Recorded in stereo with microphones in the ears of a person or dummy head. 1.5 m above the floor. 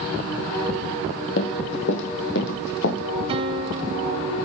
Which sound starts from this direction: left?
Running footsteps, at 1.4 s.